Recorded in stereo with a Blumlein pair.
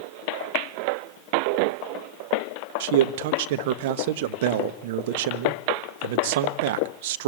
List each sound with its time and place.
2.8 s a man speaking: 50° right, 1.3 m